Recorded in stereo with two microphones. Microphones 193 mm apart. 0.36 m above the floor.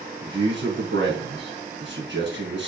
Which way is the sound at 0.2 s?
70° right (ahead or behind).